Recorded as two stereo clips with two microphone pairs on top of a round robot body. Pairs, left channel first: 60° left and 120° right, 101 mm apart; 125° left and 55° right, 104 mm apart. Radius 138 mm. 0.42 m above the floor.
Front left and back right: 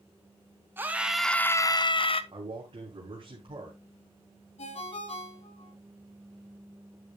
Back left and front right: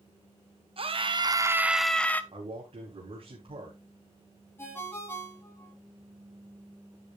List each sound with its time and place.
0.8 s a scream: 55° right, 1.3 m; by 2.2 s 55° left, 1.3 m
2.3 s a man speaking: 85° right, 3.5 m
4.6 s a ringtone: 55° left, 6.5 m